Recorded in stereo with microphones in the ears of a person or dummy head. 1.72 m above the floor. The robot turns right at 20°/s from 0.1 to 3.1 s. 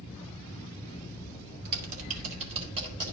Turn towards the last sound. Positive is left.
turn(degrees=-20)  # may be behind; listen again after turning